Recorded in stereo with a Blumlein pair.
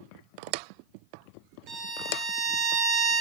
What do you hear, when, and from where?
1.7 s a violin: 20° right, 0.6 m